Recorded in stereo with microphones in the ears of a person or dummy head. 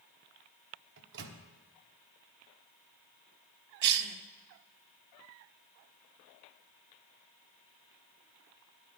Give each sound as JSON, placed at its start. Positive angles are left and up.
{"t": 1.0, "sound": "a microwave", "side_deg": -70, "distance_m": 1.0}
{"t": 3.8, "sound": "a cough", "side_deg": -65, "distance_m": 0.9}